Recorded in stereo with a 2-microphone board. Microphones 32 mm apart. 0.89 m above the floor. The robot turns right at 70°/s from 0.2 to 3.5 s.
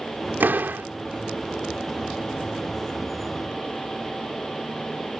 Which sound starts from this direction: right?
A door slam, at 0.4 s.